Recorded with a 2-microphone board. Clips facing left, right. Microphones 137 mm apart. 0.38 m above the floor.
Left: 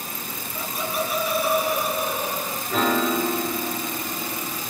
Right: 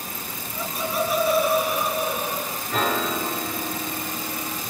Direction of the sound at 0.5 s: 40° right (ahead or behind).